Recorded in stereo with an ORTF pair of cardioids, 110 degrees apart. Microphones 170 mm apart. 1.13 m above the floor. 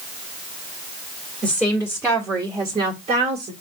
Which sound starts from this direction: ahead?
A woman speaking, at 1.4 s.